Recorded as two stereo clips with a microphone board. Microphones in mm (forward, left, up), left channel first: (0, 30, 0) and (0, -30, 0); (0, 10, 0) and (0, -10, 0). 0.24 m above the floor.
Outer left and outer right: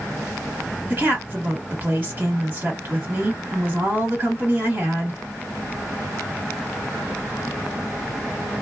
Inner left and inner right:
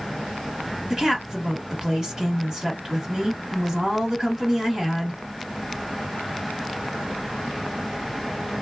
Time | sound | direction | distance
0.9 | a woman speaking | 35° right (ahead or behind) | 1.8 m